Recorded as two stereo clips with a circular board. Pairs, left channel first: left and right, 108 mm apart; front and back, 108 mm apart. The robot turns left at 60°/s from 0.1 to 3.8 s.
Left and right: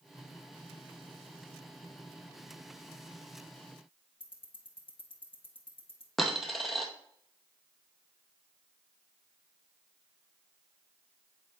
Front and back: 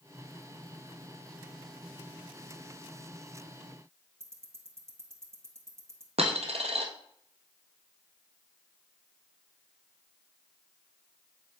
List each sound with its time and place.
4.2 s ticking: 115° left, 1.3 m
6.2 s a dropped coin: straight behind, 1.3 m